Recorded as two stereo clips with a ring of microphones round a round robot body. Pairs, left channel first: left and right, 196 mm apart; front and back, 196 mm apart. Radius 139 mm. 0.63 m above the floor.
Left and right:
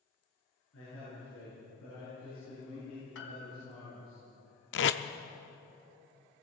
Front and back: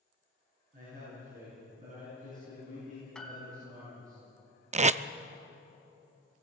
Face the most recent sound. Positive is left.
turn(degrees=125)